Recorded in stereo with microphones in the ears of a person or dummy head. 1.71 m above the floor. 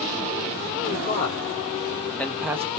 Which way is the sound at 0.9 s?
35° left (ahead or behind).